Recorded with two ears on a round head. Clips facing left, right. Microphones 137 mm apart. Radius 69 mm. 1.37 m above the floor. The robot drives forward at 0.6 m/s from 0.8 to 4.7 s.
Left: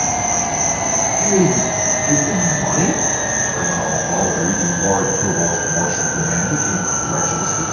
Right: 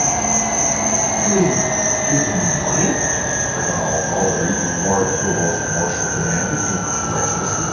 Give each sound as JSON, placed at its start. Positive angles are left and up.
{"t": 0.0, "sound": "an insect", "side_deg": 15, "distance_m": 1.3}
{"t": 1.2, "sound": "a man speaking", "side_deg": 35, "distance_m": 3.0}